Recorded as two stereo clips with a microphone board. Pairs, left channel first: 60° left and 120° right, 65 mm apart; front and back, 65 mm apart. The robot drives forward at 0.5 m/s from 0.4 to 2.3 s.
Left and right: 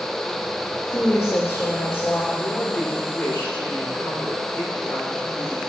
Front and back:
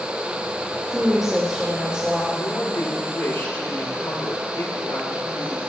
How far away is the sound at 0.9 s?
About 3 m.